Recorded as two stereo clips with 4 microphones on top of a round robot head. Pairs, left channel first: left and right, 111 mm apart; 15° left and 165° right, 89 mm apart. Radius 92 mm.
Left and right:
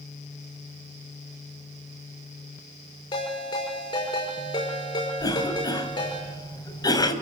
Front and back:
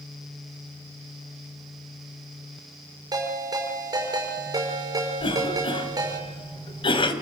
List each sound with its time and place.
3.1 s a ringtone: 145° left, 6 m
5.2 s a cough: 35° left, 3 m